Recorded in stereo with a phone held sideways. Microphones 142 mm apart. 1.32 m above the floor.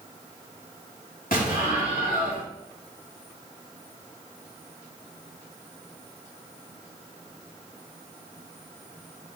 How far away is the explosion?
About 2.5 m.